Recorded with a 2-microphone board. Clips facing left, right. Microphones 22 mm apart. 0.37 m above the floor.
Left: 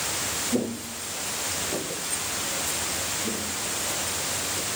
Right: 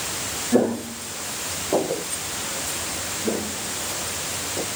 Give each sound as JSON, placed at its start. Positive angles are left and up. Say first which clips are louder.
{"t": 0.5, "sound": "footsteps", "louder": "right 7 dB", "side_deg": -55}
{"t": 3.2, "sound": "footsteps", "louder": "right 3 dB", "side_deg": -60}